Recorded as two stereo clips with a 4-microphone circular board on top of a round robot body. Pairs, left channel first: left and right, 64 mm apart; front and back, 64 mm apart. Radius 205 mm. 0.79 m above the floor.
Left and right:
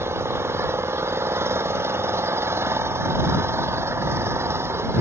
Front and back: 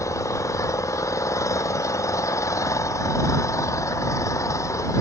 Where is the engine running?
40° right.